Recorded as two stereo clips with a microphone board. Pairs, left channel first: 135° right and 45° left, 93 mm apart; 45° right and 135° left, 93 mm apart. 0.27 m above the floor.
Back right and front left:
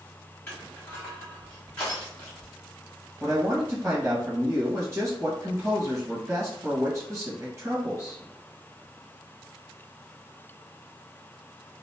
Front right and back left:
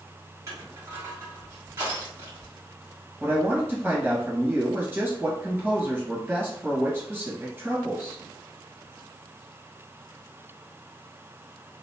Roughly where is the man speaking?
Left.